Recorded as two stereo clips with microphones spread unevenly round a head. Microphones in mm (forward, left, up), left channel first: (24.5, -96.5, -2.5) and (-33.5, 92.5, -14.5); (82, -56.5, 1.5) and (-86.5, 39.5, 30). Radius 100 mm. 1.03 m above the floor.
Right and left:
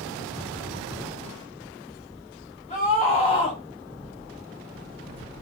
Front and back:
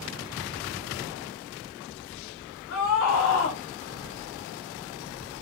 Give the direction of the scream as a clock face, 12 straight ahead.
12 o'clock.